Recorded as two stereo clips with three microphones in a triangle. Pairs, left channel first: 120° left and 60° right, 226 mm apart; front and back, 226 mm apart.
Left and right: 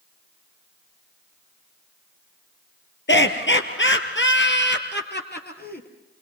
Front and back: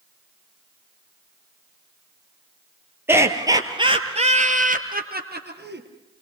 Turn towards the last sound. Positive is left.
turn(degrees=160)